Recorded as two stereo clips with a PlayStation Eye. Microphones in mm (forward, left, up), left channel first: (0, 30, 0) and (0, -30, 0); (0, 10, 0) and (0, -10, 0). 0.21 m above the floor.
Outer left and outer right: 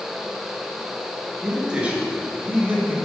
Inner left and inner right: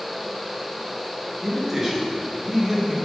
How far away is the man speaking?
About 3 m.